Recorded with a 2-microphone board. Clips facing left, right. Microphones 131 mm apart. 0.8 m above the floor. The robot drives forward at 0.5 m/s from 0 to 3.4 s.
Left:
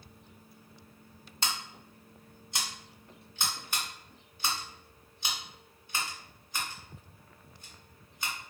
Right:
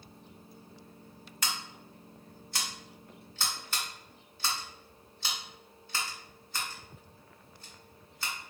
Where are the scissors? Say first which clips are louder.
Left 1 dB; 30° left (ahead or behind), 1.1 m; by 8.3 s 15° left (ahead or behind), 1.9 m.